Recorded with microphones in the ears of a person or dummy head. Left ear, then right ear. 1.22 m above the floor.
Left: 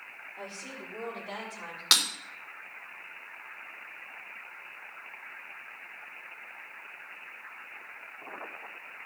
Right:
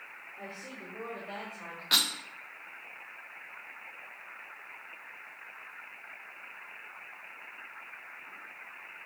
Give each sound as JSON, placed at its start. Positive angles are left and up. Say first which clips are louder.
{"t": 0.4, "sound": "a woman speaking", "louder": "left 2 dB", "side_deg": 30, "distance_m": 4.0}
{"t": 1.9, "sound": "breaking glass", "louder": "left 2 dB", "side_deg": 60, "distance_m": 3.0}